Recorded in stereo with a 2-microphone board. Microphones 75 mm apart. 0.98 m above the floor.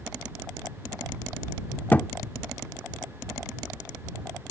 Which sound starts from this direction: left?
A thud, at 1.9 s.